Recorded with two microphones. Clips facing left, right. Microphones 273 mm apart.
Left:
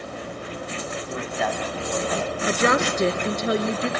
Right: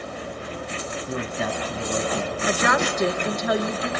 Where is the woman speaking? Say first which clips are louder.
Left 3 dB; 30° left (ahead or behind), 1.6 m.